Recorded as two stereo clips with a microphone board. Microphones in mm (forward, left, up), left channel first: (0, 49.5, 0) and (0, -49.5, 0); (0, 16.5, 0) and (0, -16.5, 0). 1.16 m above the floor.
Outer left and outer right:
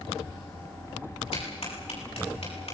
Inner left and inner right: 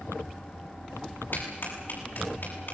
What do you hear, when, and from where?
1.3 s a clap: 85° left, 7.5 m